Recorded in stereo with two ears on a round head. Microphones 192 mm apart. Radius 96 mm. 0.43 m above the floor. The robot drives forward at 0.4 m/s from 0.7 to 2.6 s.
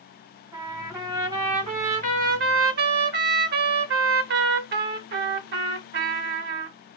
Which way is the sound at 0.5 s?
20° right (ahead or behind).